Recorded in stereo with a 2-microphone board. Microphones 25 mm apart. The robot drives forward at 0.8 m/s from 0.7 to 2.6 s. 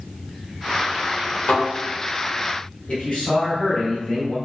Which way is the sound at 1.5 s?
60° left (ahead or behind).